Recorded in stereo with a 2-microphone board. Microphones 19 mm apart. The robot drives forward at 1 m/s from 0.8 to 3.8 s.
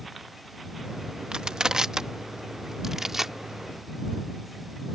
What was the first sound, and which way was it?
Crushing, 50° right (ahead or behind).